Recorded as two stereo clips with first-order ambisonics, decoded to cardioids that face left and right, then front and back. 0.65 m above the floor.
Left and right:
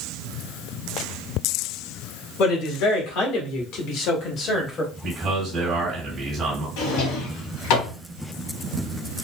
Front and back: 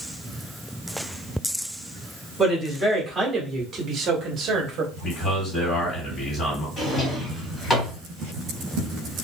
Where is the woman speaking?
95° left, 1.9 m; by 4.9 s 155° left, 0.9 m.